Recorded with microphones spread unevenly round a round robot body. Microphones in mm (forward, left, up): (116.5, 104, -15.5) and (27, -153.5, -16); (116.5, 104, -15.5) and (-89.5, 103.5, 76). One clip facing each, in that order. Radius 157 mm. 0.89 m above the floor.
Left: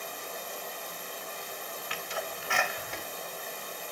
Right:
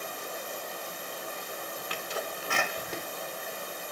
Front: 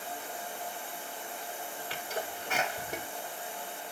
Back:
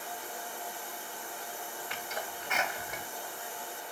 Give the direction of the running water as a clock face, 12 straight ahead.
2 o'clock.